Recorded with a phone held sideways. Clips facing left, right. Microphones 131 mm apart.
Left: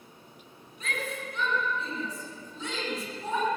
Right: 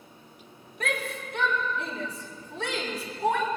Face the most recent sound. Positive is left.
turn(degrees=-80)